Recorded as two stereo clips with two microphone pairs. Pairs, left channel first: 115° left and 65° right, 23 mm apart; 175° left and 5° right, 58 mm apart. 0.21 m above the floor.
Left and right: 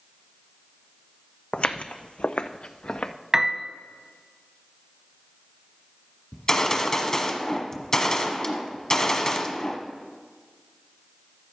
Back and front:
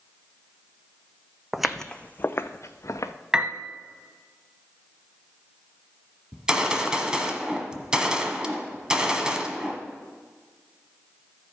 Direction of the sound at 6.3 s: 65° left.